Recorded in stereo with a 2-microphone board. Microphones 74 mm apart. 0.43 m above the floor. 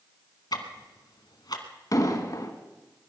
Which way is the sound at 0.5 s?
65° left (ahead or behind).